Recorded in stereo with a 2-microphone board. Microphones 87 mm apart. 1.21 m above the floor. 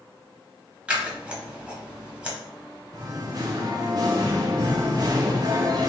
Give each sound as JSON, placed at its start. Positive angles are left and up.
{"t": 0.9, "sound": "scissors", "side_deg": -15, "distance_m": 1.1}
{"t": 2.9, "sound": "singing", "side_deg": -45, "distance_m": 0.6}